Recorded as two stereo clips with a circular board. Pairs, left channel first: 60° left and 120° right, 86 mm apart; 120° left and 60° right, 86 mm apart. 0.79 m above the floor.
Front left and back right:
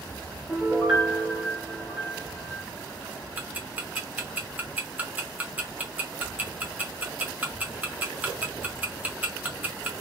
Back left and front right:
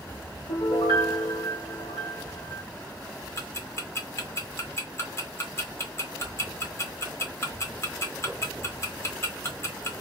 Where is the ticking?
170° left, 0.6 m.